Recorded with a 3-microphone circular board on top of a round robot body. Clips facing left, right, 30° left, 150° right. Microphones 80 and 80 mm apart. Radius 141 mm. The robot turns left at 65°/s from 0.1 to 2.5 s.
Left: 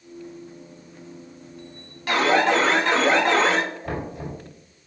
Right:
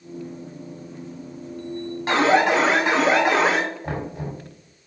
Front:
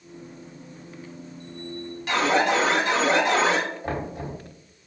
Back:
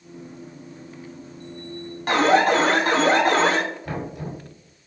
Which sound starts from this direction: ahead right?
Knocking, at 3.8 s.